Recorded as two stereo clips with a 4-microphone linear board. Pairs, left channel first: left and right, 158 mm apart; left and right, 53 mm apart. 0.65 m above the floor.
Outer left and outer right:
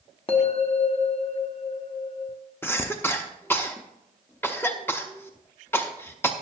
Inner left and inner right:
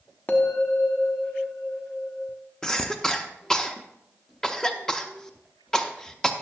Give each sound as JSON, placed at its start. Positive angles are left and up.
{"t": 0.3, "sound": "a bell", "side_deg": 35, "distance_m": 1.1}
{"t": 2.6, "sound": "a cough", "side_deg": 15, "distance_m": 0.6}